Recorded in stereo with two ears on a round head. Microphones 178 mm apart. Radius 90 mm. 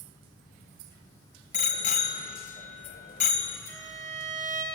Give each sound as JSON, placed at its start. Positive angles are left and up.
{"t": 1.5, "sound": "a bicycle bell", "side_deg": 40, "distance_m": 2.5}
{"t": 3.7, "sound": "a violin", "side_deg": -45, "distance_m": 4.5}